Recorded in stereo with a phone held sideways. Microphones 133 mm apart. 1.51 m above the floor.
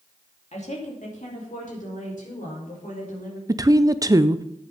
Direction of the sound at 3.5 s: 25° right (ahead or behind).